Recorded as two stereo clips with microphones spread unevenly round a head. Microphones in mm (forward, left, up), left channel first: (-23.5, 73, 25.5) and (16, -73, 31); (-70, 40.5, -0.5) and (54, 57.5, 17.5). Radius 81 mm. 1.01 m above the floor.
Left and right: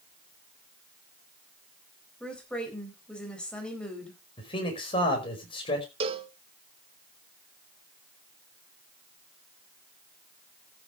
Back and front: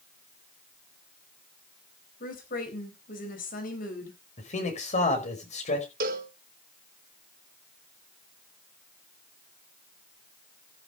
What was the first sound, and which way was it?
A woman speaking, 170° right.